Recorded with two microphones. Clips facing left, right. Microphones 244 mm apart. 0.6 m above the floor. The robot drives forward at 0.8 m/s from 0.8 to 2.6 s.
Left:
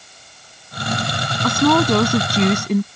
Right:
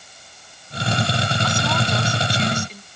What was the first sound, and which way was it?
A woman speaking, 65° left (ahead or behind).